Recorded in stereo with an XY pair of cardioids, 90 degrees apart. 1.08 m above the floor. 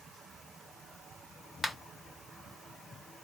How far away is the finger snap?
About 1.0 m.